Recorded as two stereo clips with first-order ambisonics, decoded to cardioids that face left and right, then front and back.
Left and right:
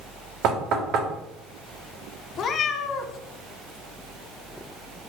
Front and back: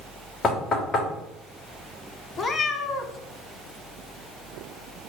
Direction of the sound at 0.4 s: 65° right.